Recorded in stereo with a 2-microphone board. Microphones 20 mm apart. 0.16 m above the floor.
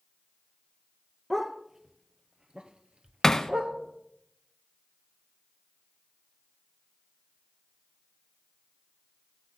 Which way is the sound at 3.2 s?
25° left (ahead or behind).